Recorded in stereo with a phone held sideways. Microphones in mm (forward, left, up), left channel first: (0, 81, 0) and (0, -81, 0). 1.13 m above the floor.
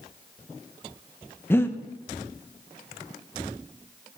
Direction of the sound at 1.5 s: 15° left (ahead or behind).